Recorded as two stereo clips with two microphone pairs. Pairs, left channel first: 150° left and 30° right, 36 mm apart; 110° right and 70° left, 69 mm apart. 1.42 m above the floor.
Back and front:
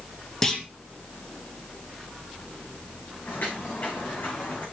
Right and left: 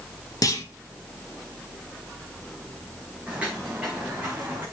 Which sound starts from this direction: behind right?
A clunk, at 0.4 s.